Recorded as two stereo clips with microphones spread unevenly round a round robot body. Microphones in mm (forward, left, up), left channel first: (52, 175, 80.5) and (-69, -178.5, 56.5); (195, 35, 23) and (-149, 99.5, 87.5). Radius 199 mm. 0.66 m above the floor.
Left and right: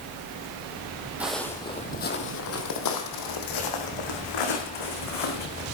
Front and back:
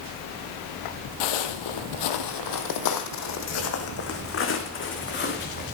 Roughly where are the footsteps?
Ahead.